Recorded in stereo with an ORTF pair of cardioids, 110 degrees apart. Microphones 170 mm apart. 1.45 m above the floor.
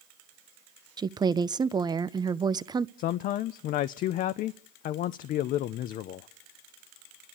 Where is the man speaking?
65° left, 0.5 m.